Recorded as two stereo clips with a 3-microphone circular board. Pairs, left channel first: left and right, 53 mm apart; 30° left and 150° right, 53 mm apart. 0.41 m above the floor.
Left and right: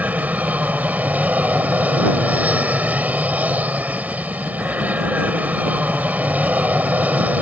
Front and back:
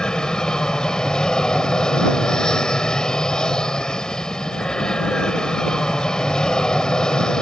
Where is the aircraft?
40° right.